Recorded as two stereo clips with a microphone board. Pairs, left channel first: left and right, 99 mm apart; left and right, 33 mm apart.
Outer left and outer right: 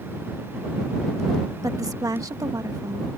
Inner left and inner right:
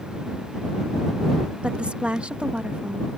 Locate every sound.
1.6 s a woman speaking: 35° right (ahead or behind)